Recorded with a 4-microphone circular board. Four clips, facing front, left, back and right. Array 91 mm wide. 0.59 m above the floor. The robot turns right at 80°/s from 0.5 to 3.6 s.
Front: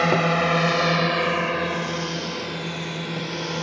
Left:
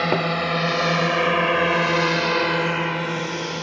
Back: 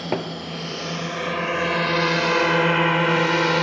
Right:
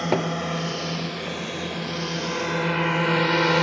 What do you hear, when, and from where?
0.0 s a drone: 25° left; by 3.6 s 135° right